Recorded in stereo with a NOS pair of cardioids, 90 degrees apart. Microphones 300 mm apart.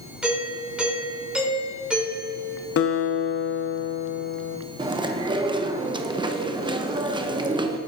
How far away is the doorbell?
About 3 m.